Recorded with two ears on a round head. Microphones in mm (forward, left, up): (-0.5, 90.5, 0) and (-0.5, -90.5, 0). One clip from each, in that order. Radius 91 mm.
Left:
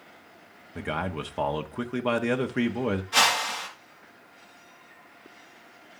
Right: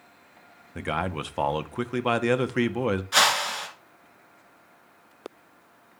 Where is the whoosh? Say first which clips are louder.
Right 1 dB; 35° right (ahead or behind), 3 m.